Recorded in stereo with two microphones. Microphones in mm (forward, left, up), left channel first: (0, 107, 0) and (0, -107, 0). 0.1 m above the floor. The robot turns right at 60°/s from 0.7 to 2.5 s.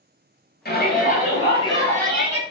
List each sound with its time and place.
0.7 s a shout: 95° left, 1.8 m; by 2.4 s 165° right, 1.8 m